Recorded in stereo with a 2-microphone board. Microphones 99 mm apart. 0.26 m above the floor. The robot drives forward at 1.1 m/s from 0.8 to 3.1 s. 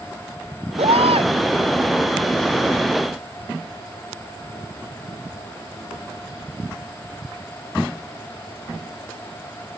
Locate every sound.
0.8 s a baby crying: 80° right